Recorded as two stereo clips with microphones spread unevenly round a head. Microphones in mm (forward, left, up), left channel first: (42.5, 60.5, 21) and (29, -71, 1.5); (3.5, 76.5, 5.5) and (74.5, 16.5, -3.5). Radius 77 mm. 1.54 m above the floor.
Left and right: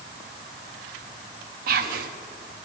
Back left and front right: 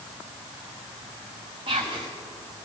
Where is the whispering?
100° right, 0.6 m.